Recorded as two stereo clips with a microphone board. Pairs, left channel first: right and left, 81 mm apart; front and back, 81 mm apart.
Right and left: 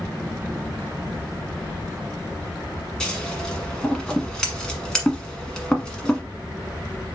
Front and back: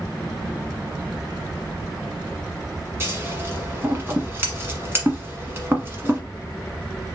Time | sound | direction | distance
3.0 | scissors | 160° right | 1.2 m